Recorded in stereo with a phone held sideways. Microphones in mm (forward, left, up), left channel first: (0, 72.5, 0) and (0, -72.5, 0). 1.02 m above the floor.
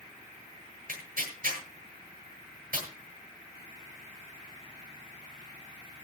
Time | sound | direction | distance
0.9 | tearing paper | 70° right (ahead or behind) | 9 m